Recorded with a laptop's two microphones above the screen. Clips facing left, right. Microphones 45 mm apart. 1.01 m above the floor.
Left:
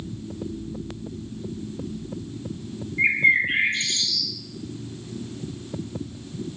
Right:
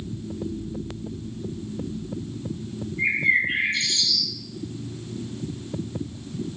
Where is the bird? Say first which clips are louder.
Left 2 dB; 45° left (ahead or behind), 2.5 m.